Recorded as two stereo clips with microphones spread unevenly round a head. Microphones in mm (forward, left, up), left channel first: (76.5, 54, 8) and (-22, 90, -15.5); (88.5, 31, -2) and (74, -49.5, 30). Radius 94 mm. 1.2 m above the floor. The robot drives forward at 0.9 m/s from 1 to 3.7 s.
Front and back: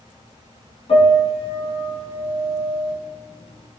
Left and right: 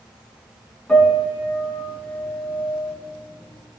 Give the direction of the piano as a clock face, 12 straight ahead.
12 o'clock.